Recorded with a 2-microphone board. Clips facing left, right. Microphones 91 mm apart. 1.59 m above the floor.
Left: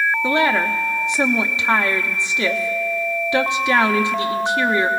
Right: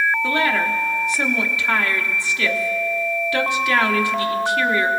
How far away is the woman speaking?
About 0.8 m.